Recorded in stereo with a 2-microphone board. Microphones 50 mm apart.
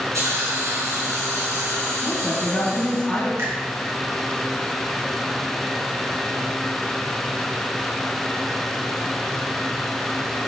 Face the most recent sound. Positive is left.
turn(degrees=-55)  # may be behind; listen again after turning